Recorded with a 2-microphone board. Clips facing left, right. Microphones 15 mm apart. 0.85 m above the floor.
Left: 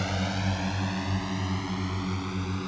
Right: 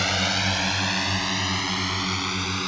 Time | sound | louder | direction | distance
0.0 | a drone | right 8 dB | 55° right (ahead or behind) | ?